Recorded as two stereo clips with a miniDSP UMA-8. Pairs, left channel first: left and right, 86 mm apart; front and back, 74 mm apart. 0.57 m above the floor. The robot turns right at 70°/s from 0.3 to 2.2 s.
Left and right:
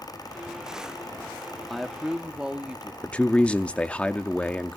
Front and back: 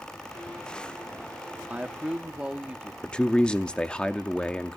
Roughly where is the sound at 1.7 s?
Behind.